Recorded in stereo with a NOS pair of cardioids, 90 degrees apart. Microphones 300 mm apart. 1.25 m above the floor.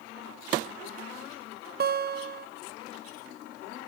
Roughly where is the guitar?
Ahead right.